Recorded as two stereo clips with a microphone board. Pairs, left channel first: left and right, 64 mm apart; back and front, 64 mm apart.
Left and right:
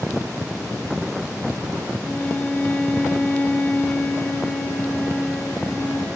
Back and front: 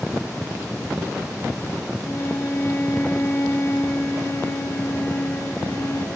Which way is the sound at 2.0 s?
150° left.